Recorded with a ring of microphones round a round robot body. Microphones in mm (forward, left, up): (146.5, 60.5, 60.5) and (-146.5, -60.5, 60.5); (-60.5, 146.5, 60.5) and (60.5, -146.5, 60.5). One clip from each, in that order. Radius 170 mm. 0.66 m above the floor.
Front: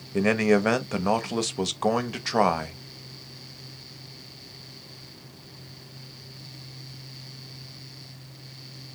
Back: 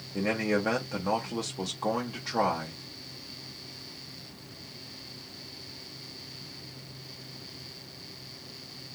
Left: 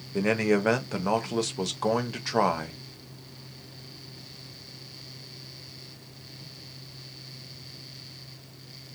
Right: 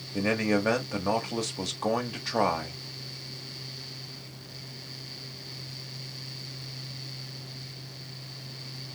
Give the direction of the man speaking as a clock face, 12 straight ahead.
11 o'clock.